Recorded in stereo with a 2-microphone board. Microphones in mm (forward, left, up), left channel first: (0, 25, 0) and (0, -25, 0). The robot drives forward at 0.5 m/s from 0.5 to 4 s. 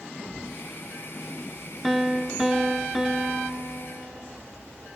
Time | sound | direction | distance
0.2 | a thud | 55° left (ahead or behind) | 3 m
1.8 | a piano | 5° right (ahead or behind) | 0.5 m